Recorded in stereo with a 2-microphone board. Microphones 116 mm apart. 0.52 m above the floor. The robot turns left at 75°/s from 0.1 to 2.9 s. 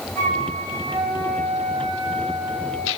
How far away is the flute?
About 7.5 m.